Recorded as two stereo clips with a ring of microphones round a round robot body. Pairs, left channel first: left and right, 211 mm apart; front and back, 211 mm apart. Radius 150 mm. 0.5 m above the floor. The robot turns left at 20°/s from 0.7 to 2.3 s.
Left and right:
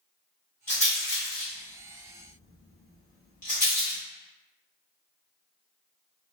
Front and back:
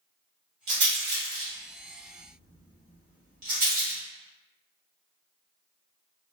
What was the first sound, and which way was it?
A rattle, 170° left.